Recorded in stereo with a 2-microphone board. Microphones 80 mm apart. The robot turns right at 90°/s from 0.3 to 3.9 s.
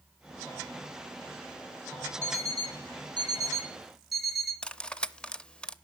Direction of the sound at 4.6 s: 10° left (ahead or behind).